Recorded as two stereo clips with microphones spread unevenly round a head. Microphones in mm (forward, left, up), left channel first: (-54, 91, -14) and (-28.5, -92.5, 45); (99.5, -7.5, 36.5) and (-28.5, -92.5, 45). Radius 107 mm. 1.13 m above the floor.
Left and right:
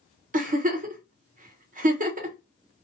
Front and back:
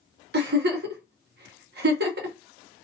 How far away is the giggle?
About 0.7 m.